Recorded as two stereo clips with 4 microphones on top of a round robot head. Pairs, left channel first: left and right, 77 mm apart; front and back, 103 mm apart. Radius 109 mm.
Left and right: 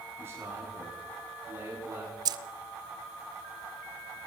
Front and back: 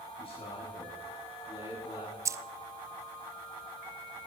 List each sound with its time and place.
0.2 s a man speaking: 35° right, 8 m
2.2 s keys jangling: 120° right, 0.5 m